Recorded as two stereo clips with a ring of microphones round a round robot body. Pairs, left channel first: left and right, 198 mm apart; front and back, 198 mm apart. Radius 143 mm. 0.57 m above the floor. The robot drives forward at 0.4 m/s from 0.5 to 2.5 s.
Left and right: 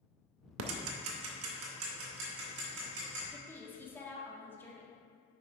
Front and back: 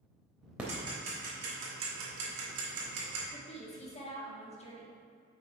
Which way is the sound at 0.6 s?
95° right.